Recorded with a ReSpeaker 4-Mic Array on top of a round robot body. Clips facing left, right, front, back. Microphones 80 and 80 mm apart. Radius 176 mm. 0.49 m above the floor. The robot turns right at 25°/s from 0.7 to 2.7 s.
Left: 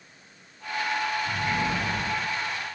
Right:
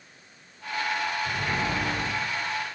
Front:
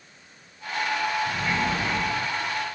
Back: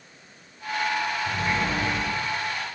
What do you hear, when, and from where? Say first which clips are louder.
1.3 s a sliding door: left 1 dB, even; 110° right, 2.5 m; by 2.1 s 90° right, 2.5 m